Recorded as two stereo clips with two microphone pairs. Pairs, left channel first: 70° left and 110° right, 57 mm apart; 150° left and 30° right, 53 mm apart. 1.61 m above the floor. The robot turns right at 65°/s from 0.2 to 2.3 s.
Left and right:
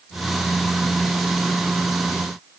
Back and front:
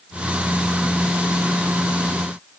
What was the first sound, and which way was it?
Only background noise.